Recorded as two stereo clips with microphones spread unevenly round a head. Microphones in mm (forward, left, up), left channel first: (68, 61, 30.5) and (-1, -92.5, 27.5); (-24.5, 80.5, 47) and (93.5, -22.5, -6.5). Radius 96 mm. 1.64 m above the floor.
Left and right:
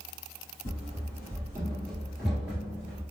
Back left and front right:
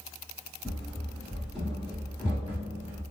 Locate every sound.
0.7 s running footsteps: 90° left, 1.8 m; by 3.0 s 145° right, 1.7 m